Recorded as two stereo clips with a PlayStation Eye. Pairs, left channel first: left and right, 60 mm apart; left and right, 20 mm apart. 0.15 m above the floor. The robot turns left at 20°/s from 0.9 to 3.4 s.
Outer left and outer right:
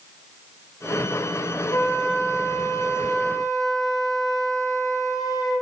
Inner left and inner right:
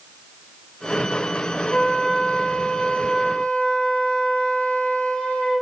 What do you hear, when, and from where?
1.7 s a flute: 120° left, 3.5 m; by 5.6 s 85° left, 3.5 m